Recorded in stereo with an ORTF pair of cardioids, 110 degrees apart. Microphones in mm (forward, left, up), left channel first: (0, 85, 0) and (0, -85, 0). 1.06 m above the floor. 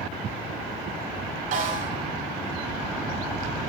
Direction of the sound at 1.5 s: 50° right.